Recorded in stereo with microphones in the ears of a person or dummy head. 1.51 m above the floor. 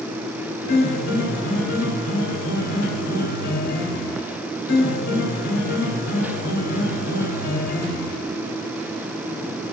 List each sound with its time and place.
0.7 s a piano: 60° left (ahead or behind), 1.1 m